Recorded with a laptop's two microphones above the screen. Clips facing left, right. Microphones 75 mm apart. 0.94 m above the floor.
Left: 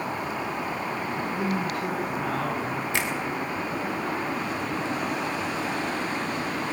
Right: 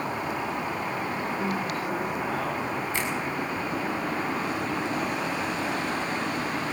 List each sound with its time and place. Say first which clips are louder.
1.2 s a man speaking: left 1 dB; 70° left (ahead or behind), 8 m
2.9 s a finger snap: left 1 dB; 75° left (ahead or behind), 3.5 m